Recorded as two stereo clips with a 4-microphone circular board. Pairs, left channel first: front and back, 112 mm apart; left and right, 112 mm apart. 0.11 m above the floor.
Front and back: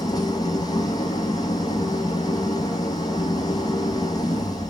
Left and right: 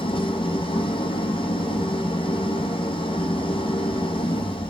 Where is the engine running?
55° left, 1.7 m.